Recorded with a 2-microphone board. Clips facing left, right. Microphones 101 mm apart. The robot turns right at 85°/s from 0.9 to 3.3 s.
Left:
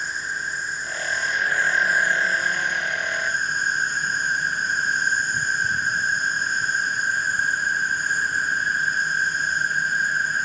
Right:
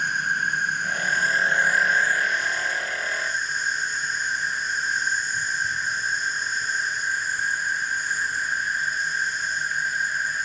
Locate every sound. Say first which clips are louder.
0.0 s an insect: right 4 dB; 80° right, 1.4 m; by 10.5 s 125° left, 1.4 m